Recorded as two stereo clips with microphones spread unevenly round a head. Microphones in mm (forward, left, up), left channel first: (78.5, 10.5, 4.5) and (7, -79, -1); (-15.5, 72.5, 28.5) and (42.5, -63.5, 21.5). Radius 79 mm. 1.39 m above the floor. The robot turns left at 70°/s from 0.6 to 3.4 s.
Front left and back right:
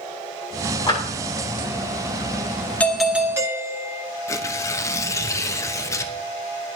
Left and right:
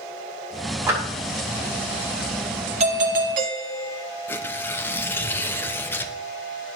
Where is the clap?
5° left, 5.5 m; by 1.0 s 5° right, 5.5 m.